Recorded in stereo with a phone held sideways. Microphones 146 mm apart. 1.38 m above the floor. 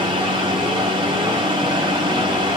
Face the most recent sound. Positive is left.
turn(degrees=-35)  # may be behind; listen again after turning